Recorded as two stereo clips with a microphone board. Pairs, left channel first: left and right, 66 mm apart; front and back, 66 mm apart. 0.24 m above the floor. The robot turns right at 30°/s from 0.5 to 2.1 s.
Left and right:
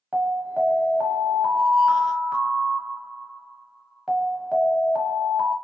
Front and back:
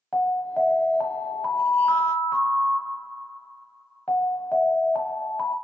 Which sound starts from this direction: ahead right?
An alarm, at 0.1 s.